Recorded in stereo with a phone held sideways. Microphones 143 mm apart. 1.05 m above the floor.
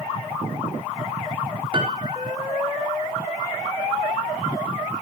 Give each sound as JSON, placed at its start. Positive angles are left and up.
{"t": 1.7, "sound": "a piano", "side_deg": -35, "distance_m": 1.4}